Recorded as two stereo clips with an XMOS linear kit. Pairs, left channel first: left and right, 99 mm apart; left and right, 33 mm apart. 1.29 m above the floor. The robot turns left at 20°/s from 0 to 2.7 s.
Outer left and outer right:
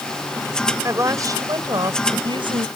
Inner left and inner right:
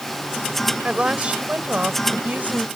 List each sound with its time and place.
0.8 s a woman speaking: 30° right; by 2.7 s 65° right